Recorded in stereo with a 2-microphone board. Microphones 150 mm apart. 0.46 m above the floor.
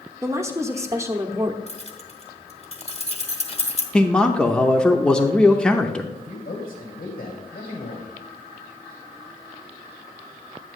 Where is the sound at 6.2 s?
65° left (ahead or behind), 3 m.